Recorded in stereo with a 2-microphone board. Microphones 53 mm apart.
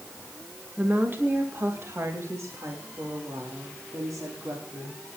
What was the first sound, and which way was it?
A woman speaking, 30° right (ahead or behind).